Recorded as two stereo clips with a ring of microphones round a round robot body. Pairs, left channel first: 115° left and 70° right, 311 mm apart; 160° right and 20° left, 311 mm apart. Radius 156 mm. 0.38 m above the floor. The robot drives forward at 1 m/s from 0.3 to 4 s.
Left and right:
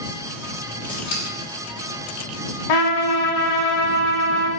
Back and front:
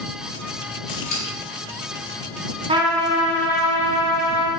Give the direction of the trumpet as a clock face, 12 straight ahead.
9 o'clock.